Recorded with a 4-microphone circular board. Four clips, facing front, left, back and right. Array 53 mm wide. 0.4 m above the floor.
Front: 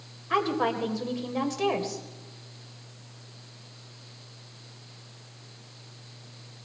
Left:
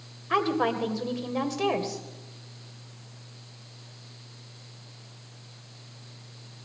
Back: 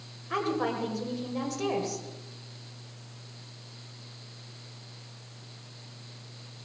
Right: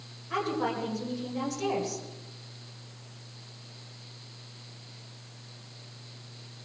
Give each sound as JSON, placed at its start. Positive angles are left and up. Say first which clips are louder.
{"t": 0.3, "sound": "a woman speaking", "louder": "left 5 dB, front 3 dB", "azimuth_deg": 60, "distance_m": 1.9}